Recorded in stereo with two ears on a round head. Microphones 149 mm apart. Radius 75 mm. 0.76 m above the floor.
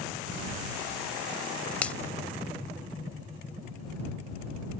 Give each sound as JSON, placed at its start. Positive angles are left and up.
{"t": 1.8, "sound": "a finger snap", "side_deg": 10}